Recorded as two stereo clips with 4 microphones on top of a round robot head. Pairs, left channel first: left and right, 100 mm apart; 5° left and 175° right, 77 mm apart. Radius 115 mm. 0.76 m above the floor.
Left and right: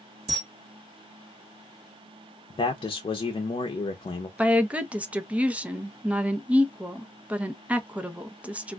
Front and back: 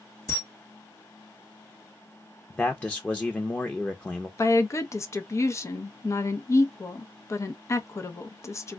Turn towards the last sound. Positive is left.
turn(degrees=-20)